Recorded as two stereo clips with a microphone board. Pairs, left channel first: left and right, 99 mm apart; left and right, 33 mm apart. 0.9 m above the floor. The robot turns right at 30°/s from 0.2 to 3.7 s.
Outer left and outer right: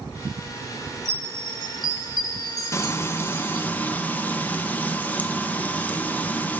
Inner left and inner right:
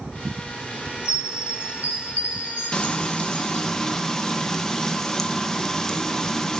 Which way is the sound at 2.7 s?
30° left (ahead or behind).